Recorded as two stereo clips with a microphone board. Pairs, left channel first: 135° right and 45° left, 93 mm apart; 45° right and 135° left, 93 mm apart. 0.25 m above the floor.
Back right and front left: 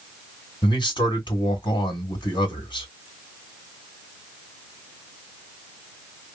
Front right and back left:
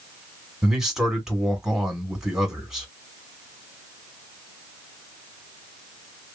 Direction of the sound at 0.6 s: 140° right.